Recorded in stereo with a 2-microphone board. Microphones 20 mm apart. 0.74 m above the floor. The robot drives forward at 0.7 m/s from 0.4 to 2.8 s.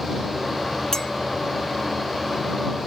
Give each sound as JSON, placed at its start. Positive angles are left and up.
{"t": 0.9, "sound": "a clink", "side_deg": 25, "distance_m": 1.2}